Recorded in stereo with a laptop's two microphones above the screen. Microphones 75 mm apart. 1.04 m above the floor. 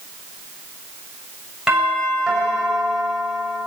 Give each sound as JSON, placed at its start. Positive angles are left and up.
{"t": 1.7, "sound": "a doorbell", "side_deg": -10, "distance_m": 6.0}